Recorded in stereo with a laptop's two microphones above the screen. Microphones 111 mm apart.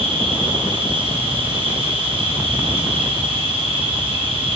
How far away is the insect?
About 6.5 m.